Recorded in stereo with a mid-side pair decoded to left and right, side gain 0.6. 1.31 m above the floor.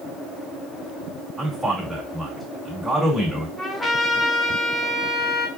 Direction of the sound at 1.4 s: 10° right.